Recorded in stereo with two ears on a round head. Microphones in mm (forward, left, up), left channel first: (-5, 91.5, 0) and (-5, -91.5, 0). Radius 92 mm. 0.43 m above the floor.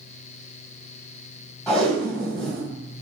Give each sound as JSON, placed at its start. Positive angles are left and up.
{"t": 1.7, "sound": "tape being pulled", "side_deg": 5, "distance_m": 1.8}